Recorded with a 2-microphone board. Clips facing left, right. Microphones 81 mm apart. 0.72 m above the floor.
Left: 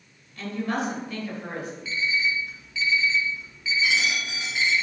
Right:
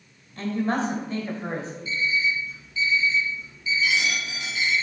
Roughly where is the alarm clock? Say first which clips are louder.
Right 1 dB; left.